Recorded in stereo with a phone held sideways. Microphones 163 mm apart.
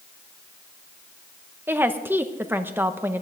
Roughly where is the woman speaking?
Centre.